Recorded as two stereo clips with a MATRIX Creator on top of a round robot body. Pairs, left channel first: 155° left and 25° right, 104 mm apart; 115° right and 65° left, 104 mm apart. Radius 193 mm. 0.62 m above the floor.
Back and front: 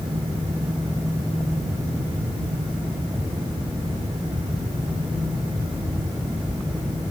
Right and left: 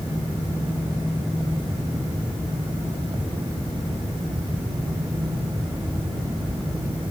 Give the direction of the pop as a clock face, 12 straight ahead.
I don't hear a pop.